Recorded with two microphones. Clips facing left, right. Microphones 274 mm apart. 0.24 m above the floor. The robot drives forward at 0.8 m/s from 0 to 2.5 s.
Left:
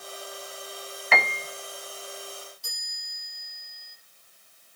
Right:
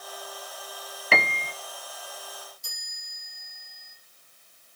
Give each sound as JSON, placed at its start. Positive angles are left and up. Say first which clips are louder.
{"t": 1.1, "sound": "a piano", "louder": "right 1 dB", "side_deg": -35, "distance_m": 0.9}
{"t": 2.6, "sound": "a chime", "louder": "left 3 dB", "side_deg": 75, "distance_m": 8.5}